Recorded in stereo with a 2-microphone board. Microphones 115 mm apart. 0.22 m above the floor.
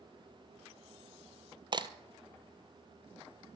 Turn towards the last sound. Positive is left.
turn(degrees=-40)  # may be behind; listen again after turning